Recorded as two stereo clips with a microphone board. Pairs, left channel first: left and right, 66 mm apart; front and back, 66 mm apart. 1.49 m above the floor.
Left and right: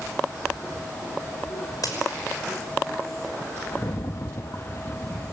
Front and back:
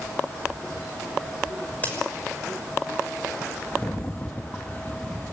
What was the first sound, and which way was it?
A crack, 65° left.